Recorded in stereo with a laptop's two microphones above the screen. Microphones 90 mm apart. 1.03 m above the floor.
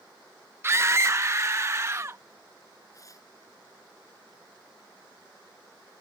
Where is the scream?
30° right (ahead or behind); by 2.2 s 35° right (ahead or behind).